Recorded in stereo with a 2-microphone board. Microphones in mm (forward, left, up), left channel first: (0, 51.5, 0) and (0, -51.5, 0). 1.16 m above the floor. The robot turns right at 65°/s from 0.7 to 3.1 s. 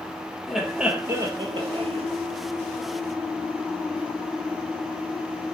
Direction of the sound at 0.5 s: Straight behind.